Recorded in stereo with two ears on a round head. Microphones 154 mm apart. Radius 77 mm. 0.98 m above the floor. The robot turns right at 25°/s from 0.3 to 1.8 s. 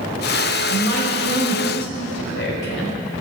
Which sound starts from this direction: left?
A woman speaking, at 0.7 s.